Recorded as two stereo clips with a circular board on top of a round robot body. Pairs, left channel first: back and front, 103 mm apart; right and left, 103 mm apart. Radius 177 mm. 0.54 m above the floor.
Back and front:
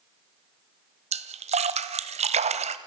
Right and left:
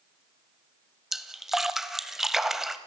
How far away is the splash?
About 1.1 m.